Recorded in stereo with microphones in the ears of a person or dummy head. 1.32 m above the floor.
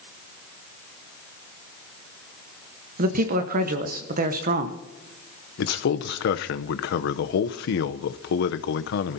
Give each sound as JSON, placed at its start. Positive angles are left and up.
{"t": 3.0, "sound": "a man speaking", "side_deg": -55, "distance_m": 1.3}
{"t": 5.6, "sound": "a man speaking", "side_deg": 60, "distance_m": 0.8}